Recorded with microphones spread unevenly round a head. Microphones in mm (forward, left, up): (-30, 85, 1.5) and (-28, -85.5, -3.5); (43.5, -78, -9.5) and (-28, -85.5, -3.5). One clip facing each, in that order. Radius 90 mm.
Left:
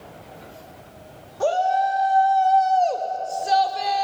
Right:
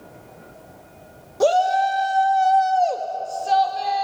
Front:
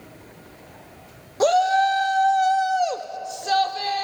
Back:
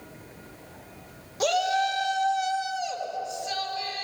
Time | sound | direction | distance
1.4 | a shout | 45° right | 1.9 m